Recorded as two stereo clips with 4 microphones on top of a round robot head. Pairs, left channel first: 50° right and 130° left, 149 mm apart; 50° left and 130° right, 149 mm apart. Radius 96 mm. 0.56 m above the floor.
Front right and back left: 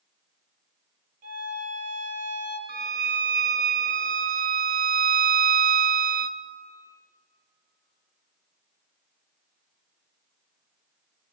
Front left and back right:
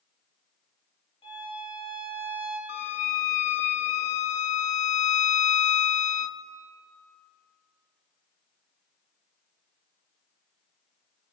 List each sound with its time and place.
1.2 s a violin: 110° left, 4 m
2.7 s a violin: 95° left, 0.5 m